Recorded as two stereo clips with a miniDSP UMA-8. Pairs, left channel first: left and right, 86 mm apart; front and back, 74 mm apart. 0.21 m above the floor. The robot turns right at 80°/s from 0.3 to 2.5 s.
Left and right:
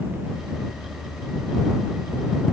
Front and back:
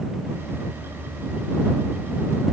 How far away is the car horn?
I don't hear a car horn.